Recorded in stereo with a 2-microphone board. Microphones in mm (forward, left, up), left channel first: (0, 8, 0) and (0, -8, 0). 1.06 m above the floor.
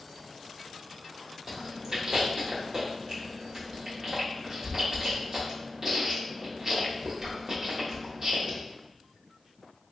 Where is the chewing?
35° right (ahead or behind), 1.0 m.